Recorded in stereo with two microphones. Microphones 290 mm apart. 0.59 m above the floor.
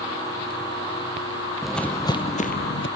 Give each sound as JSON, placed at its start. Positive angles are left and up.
{"t": 1.6, "sound": "footsteps", "side_deg": 0, "distance_m": 1.0}